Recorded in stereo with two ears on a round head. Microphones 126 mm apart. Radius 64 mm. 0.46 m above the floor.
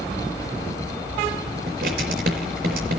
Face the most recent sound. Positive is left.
turn(degrees=-80)